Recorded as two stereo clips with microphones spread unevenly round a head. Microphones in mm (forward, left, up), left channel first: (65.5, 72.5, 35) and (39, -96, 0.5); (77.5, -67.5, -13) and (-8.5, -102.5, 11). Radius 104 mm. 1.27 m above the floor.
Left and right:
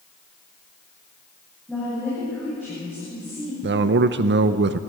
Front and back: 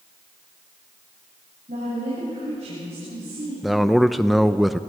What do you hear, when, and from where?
1.7 s a woman speaking: 170° left, 8 m
3.6 s a man speaking: 70° right, 0.7 m